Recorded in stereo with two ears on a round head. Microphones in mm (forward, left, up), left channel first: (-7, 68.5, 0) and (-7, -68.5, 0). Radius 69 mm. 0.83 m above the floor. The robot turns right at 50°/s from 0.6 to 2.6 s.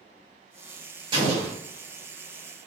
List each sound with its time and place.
1.1 s an explosion: 35° right (ahead or behind), 1.6 m; by 1.6 s 10° right (ahead or behind), 1.6 m